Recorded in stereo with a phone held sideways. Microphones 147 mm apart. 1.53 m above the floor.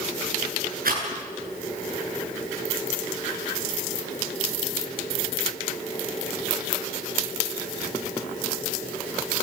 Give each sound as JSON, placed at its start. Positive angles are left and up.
{"t": 0.8, "sound": "a rattle", "side_deg": -75, "distance_m": 9.5}